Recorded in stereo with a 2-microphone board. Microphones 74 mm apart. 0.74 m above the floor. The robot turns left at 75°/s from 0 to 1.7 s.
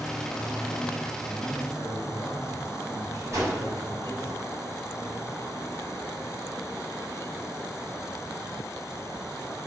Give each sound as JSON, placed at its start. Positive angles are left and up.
{"t": 1.2, "sound": "a man speaking", "azimuth_deg": 25, "distance_m": 3.5}
{"t": 3.3, "sound": "a whoosh", "side_deg": -45, "distance_m": 3.5}